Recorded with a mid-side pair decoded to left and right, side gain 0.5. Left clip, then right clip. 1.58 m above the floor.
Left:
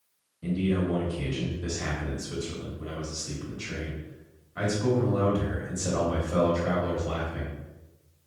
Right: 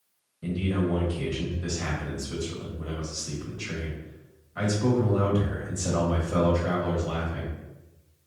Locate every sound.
0.4 s a man speaking: 10° right, 1.6 m